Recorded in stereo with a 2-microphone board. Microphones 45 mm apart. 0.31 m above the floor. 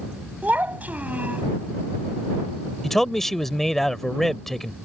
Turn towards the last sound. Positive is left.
turn(degrees=10)  # may be behind; listen again after turning